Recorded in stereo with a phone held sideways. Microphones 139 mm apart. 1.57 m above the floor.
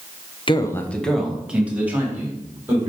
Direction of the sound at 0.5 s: 35° left (ahead or behind).